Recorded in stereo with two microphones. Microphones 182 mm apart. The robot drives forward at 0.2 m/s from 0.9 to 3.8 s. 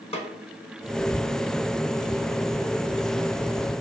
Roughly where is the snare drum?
Left.